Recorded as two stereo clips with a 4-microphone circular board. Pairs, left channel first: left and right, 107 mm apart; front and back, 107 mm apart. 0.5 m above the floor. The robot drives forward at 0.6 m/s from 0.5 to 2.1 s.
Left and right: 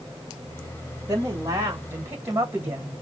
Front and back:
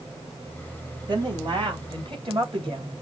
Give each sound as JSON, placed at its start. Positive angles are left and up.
{"t": 1.1, "sound": "a woman speaking", "azimuth_deg": -145, "distance_m": 2.0}